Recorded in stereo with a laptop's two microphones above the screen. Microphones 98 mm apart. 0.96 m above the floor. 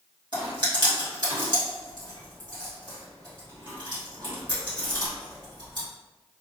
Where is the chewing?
50° right (ahead or behind), 1.4 m.